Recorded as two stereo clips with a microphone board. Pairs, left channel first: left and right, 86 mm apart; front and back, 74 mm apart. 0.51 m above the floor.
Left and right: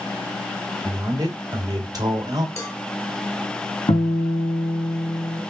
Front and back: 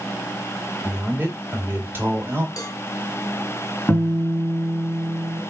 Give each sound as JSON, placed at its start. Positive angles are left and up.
{"t": 0.8, "sound": "a man speaking", "azimuth_deg": -120, "distance_m": 1.9}
{"t": 2.6, "sound": "a cowbell", "azimuth_deg": 35, "distance_m": 1.4}
{"t": 3.9, "sound": "a guitar", "azimuth_deg": 80, "distance_m": 3.5}